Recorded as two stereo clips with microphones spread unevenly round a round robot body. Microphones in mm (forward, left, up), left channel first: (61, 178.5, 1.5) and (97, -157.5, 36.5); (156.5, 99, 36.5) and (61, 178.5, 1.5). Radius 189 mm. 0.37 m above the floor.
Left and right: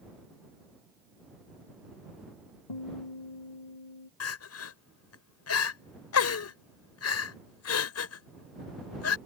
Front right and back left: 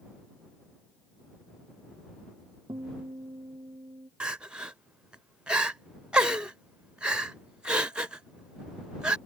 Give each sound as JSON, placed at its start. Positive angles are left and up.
{"t": 2.7, "sound": "a guitar", "azimuth_deg": 85}
{"t": 4.2, "sound": "crying", "azimuth_deg": 75}